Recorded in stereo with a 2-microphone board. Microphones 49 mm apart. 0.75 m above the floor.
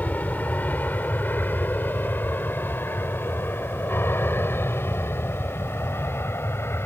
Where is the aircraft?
35° left (ahead or behind); by 6.9 s 55° left (ahead or behind).